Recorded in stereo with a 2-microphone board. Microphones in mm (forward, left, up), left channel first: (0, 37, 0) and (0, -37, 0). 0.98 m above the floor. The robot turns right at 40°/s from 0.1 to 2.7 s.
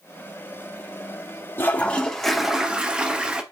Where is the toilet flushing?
150° left, 0.5 m; by 3.4 s 165° right, 0.5 m.